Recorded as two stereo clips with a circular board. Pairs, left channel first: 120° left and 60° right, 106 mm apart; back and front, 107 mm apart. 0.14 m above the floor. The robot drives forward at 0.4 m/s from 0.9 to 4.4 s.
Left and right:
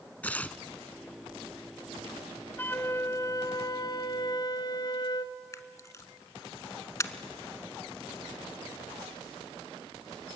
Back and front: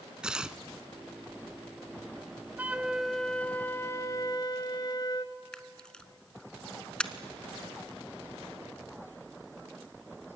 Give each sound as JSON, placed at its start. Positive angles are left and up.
{"t": 0.2, "sound": "tearing paper", "azimuth_deg": 70, "distance_m": 0.7}
{"t": 2.6, "sound": "a flute", "azimuth_deg": 60, "distance_m": 0.7}
{"t": 5.5, "sound": "a camera shutter", "azimuth_deg": 105, "distance_m": 0.8}